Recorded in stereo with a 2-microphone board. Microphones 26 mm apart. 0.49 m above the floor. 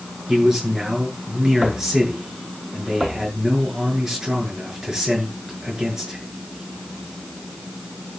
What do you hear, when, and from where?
0.3 s a man speaking: 20° right (ahead or behind), 7.5 m